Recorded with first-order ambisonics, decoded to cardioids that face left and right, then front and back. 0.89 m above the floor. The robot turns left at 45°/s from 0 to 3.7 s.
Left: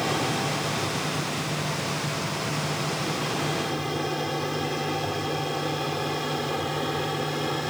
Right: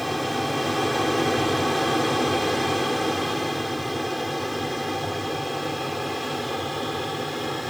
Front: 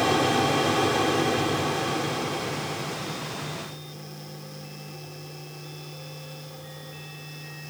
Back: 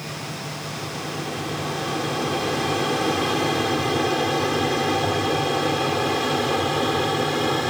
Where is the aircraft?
Straight ahead; by 7.7 s straight behind.